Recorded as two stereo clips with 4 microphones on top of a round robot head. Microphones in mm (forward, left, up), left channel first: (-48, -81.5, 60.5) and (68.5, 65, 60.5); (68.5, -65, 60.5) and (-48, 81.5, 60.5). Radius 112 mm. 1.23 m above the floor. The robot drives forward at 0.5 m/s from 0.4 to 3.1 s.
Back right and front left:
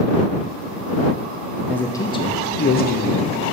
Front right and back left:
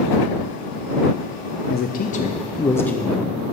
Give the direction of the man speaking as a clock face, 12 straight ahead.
2 o'clock.